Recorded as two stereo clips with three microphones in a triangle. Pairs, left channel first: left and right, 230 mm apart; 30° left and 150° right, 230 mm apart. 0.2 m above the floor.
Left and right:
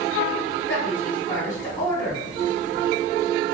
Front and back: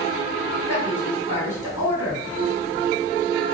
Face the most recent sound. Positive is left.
turn(degrees=145)